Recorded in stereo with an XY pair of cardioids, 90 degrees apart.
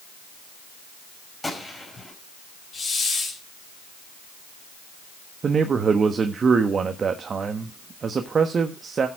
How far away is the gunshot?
About 5 m.